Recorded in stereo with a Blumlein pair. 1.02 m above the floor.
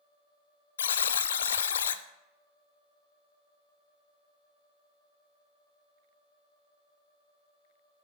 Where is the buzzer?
65° left, 0.5 m.